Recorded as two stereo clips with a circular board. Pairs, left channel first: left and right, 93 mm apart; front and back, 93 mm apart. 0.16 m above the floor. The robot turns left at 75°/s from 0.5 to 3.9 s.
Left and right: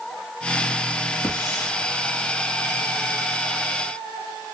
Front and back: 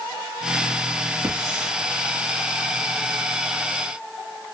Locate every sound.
1.2 s a hiss: 135° left, 2 m; by 1.7 s 100° left, 2 m